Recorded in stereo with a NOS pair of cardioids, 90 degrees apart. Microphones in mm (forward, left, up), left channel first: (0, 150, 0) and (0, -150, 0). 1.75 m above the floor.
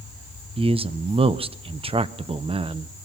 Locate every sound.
0.6 s a man speaking: 20° right, 1.2 m